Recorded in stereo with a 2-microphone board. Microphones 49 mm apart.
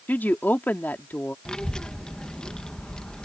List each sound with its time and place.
0.1 s a woman speaking: 35° left (ahead or behind)
1.4 s a child speaking: 15° left (ahead or behind)